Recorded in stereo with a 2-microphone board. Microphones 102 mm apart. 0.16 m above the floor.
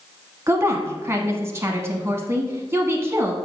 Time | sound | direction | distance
0.5 | a woman speaking | 25° right (ahead or behind) | 1.1 m